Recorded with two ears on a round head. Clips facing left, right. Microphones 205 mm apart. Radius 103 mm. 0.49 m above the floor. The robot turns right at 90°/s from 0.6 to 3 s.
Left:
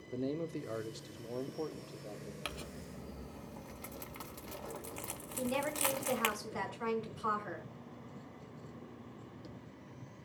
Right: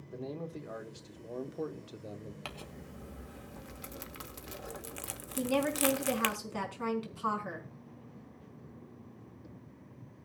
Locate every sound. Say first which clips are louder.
0.1 s a man speaking: left 4 dB; 105° left, 0.9 m; by 2.4 s 100° right, 0.9 m
2.5 s crumpling: left 1 dB; 20° left (ahead or behind), 1.1 m; by 6.3 s 15° right (ahead or behind), 1.1 m
5.4 s a woman speaking: right 6 dB; 50° right (ahead or behind), 4.5 m